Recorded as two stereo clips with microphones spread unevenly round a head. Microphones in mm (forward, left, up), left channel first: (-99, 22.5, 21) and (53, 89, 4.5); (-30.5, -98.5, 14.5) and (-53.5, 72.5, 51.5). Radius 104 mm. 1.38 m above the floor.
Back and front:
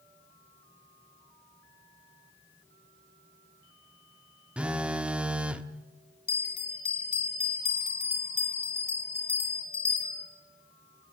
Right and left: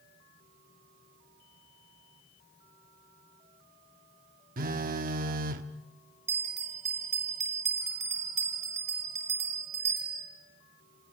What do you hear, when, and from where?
4.6 s a phone buzzing: 110° left, 1.4 m
6.3 s a bell: 145° left, 8 m